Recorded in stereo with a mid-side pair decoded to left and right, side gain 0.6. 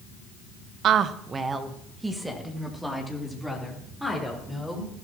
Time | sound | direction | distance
0.8 | a woman speaking | 55° right | 0.9 m